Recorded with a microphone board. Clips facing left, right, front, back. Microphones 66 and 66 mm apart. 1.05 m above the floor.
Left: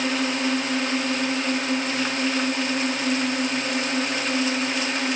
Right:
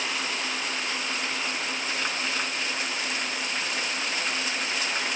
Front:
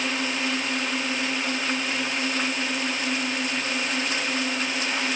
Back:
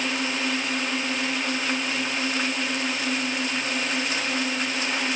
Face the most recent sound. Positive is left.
turn(degrees=90)